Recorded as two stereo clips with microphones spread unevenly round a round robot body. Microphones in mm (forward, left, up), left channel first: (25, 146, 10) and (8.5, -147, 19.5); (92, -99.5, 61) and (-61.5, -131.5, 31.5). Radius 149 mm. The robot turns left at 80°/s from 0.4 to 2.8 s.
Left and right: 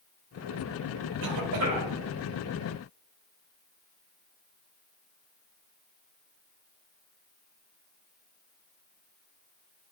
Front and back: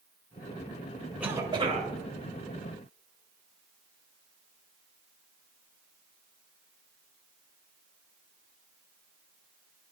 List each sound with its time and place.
1.2 s a cough: 90° right, 1.7 m; by 1.9 s 150° right, 1.7 m